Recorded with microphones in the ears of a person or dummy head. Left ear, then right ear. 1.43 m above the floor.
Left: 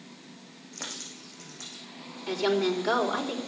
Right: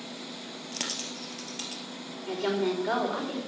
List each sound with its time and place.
0.7 s a dropped coin: 60° right (ahead or behind), 3 m
2.3 s a woman speaking: 35° left (ahead or behind), 5 m